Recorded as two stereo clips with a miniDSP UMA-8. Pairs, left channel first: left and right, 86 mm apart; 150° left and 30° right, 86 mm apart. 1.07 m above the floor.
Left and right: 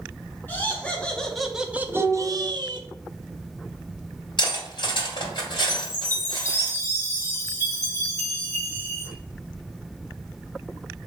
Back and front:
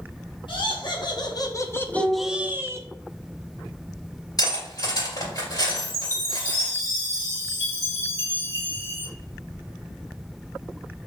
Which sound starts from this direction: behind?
Laughter, at 0.5 s.